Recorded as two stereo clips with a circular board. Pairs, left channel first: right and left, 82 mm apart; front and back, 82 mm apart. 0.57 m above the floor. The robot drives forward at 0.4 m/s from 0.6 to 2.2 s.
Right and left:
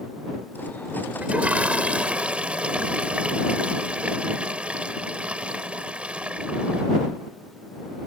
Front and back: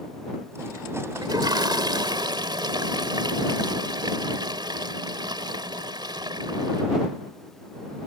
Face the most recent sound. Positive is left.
turn(degrees=165)